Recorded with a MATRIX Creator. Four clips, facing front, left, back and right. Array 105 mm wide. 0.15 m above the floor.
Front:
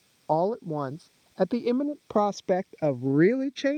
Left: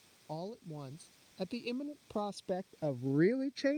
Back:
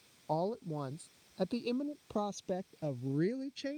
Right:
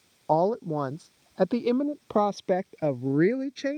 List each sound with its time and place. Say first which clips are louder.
0.3 s a woman speaking: right 20 dB, front 10 dB; 55° right; by 3.8 s 5° right